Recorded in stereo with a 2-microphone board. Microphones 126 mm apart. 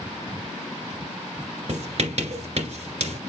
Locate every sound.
1.7 s writing: 55° right (ahead or behind), 2 m